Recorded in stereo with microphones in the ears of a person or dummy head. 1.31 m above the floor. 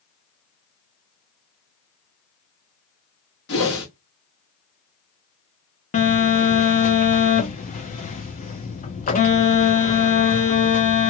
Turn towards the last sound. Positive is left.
turn(degrees=35)  # may be behind; listen again after turning